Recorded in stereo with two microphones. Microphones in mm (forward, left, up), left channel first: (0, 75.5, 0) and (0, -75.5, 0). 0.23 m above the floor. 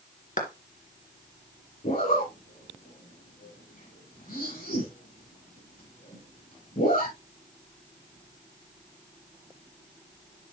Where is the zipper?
75° left (ahead or behind), 7.5 m.